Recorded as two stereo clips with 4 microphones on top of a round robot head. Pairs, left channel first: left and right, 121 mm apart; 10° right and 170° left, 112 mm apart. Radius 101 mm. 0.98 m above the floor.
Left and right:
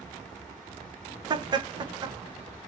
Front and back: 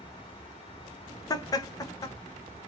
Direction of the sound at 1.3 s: 50° right.